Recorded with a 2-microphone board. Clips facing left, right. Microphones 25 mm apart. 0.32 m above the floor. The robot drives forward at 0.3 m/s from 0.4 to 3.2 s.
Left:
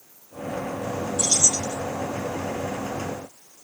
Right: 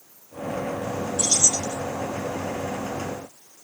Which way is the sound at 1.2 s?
40° right (ahead or behind).